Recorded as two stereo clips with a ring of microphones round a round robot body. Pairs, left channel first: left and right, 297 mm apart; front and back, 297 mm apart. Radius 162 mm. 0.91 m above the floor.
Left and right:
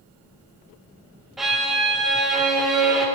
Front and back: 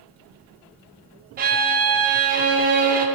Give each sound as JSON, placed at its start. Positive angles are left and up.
{"t": 1.4, "sound": "a violin", "azimuth_deg": 180, "distance_m": 0.6}